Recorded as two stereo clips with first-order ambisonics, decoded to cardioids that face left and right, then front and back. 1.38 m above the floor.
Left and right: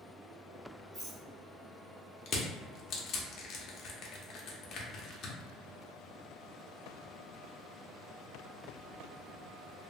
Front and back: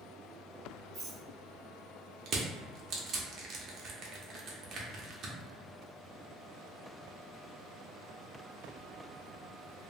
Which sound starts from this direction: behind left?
Crushing, at 2.3 s.